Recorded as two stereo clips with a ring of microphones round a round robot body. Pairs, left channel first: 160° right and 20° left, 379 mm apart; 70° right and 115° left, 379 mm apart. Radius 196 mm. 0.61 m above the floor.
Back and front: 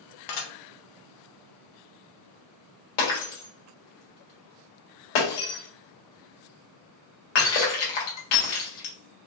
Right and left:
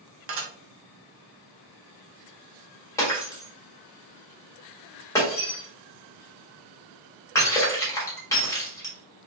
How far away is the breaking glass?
About 1.9 m.